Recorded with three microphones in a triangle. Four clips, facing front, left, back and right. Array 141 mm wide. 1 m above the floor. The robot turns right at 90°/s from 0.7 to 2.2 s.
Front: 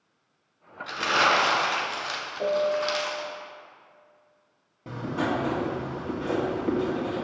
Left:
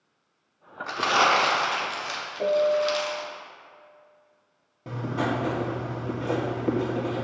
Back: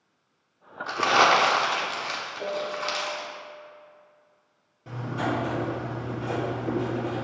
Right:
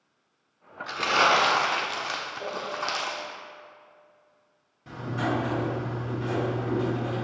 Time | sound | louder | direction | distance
0.9 | crumpling | left 1 dB, back 3 dB | 145° left | 1.2 m
2.4 | a piano | left 14 dB, front 7 dB | 60° left | 1.0 m
4.9 | writing | left 1 dB, front 1 dB | 60° left | 2.0 m